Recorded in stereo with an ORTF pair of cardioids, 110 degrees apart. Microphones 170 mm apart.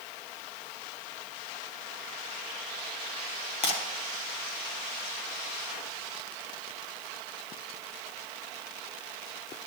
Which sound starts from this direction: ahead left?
Breaking glass, at 3.6 s.